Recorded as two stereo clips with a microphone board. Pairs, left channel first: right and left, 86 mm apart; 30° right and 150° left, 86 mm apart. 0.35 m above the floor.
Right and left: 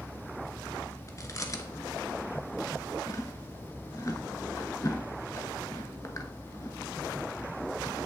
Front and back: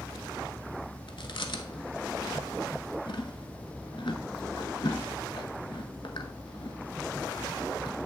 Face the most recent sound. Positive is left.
turn(degrees=-40)